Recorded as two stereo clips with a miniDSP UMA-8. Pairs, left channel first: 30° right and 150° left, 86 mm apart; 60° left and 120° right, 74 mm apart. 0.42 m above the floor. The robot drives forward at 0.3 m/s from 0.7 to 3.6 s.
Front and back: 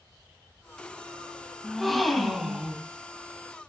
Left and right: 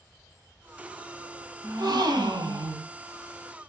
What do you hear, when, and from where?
1.6 s a gasp: 115° right, 1.9 m; by 2.9 s 125° right, 2 m